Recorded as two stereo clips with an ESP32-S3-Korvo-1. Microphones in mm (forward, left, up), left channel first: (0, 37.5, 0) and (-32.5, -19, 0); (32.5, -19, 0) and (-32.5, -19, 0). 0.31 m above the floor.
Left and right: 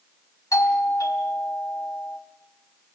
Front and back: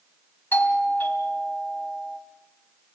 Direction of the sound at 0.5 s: 55° left.